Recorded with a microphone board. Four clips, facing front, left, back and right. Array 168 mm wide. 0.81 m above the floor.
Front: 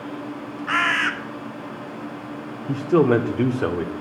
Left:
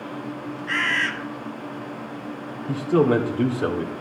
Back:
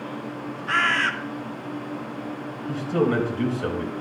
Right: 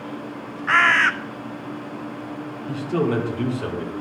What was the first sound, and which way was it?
A bird, 75° right.